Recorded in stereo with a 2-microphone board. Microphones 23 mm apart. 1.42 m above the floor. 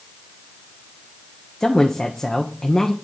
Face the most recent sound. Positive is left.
turn(degrees=30)  # may be behind; listen again after turning